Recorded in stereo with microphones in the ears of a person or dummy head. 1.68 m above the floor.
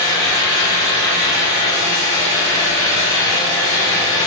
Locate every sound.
0.0 s a fan: 20° left (ahead or behind), 0.8 m